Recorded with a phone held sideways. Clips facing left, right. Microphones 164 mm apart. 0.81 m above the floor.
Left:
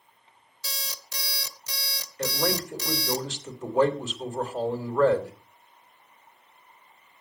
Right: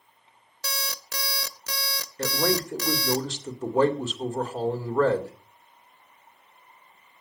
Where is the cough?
No cough in this recording.